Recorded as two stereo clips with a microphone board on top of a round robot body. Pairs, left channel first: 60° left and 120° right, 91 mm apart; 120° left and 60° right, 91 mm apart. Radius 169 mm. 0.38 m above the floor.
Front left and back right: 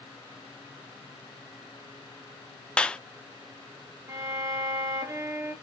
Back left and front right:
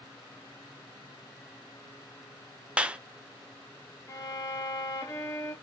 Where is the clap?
Straight ahead, 0.6 m.